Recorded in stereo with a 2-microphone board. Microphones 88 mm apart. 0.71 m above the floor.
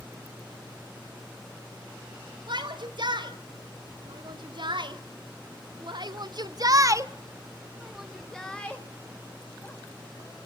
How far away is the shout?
About 4 m.